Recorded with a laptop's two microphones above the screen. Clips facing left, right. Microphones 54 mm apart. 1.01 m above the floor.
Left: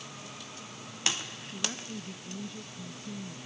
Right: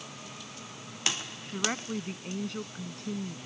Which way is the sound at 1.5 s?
75° right (ahead or behind).